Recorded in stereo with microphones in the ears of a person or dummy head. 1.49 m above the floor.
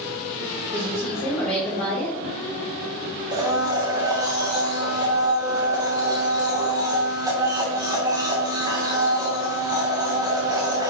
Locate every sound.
0.7 s a woman speaking: 5° left (ahead or behind), 5 m
3.3 s a blender: 20° right (ahead or behind), 1.5 m